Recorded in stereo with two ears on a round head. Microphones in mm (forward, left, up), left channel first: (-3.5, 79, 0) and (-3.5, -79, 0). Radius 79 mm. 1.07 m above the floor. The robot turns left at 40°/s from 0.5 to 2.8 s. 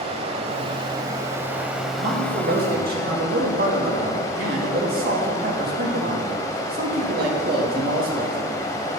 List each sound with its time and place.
0.0 s running water: 120° right, 1.1 m; by 9.0 s 150° left, 1.1 m
2.0 s a man speaking: 75° right, 1.8 m; by 8.4 s 110° right, 1.8 m